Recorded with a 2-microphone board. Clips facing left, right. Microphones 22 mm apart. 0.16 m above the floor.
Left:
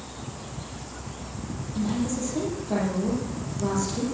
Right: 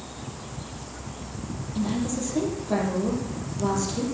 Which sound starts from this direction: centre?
A woman speaking, at 1.8 s.